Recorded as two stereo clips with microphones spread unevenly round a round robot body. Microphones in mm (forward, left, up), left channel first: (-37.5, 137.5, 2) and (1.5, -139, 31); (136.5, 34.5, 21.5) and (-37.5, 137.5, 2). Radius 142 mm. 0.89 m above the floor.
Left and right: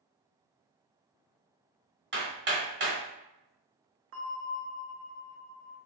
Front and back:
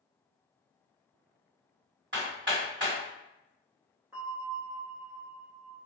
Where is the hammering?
135° right, 1.5 m.